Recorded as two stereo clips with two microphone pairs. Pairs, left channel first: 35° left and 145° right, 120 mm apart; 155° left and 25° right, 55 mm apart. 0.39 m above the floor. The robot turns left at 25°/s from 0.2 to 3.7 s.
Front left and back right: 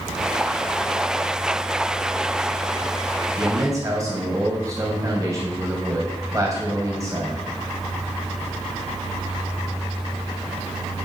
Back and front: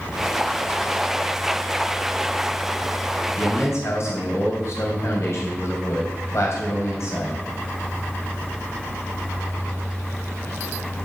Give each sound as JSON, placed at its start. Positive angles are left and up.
{"t": 3.4, "sound": "a man speaking", "azimuth_deg": 170, "distance_m": 2.5}